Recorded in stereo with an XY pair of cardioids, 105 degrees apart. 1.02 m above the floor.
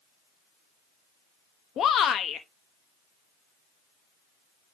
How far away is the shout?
About 0.9 m.